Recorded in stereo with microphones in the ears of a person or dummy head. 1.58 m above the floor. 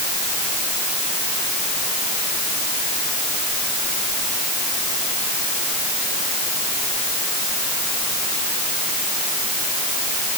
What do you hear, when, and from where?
Only background noise.